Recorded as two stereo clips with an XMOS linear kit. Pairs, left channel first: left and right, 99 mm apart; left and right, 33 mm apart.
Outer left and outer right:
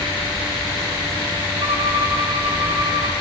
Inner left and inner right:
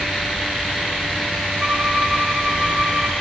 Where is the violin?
65° right (ahead or behind), 9 m.